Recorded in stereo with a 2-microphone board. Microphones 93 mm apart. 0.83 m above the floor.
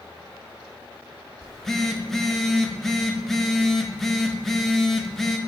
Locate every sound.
1.4 s a phone buzzing: 5° left (ahead or behind), 0.6 m